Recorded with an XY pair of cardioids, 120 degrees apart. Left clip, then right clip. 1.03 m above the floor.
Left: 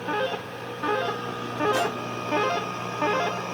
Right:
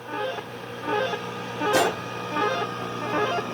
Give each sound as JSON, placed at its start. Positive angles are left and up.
{"t": 1.7, "sound": "a gunshot", "azimuth_deg": -45}